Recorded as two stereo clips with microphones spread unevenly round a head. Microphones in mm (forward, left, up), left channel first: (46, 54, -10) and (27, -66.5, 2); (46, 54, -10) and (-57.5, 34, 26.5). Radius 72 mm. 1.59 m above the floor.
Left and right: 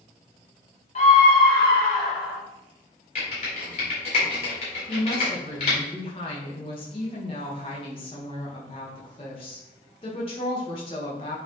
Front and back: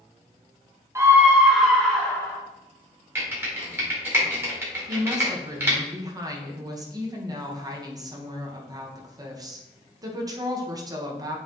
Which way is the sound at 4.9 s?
140° left.